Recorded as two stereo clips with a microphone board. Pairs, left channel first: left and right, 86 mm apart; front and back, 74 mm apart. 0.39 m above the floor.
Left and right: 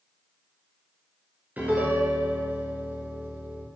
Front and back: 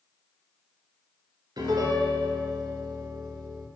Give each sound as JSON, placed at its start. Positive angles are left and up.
{"t": 1.6, "sound": "a piano", "azimuth_deg": -160, "distance_m": 2.0}